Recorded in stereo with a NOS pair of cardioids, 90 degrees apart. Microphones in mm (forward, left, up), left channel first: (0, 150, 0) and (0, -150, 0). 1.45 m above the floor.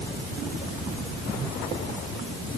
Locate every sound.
Only background noise.